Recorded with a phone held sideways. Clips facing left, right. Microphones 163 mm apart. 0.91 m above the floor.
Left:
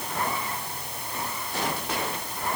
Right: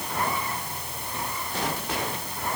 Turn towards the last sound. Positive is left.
No sound to turn to.